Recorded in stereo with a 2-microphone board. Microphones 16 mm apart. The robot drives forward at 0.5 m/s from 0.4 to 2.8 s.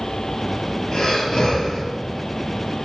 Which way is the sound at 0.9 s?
45° left (ahead or behind).